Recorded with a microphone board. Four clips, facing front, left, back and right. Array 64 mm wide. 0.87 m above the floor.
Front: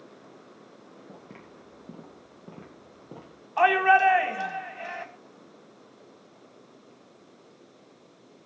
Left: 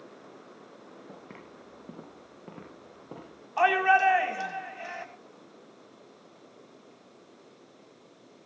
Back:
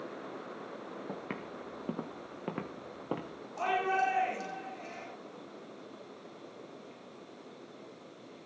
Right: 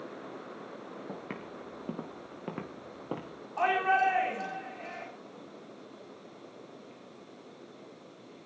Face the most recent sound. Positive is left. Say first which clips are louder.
# left 4 dB, front 11 dB
turn(degrees=25)